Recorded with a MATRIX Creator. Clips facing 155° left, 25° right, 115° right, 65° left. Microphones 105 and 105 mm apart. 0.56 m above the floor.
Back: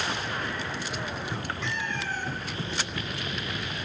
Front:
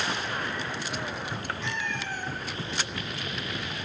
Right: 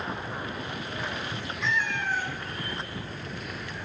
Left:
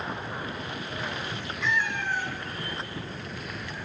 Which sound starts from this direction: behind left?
A cat meowing, at 1.6 s.